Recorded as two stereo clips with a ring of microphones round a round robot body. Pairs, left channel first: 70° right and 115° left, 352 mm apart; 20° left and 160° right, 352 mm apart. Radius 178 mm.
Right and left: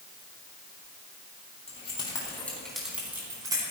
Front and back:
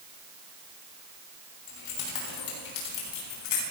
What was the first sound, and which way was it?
Keys jangling, 5° left.